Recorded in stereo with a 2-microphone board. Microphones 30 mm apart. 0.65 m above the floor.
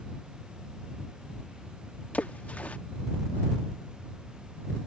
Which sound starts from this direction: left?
A splash, at 2.1 s.